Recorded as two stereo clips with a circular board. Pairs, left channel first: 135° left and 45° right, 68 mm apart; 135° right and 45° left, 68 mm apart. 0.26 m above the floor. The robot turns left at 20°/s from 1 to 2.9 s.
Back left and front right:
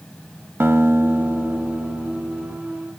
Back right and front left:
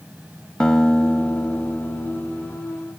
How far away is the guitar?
About 0.6 m.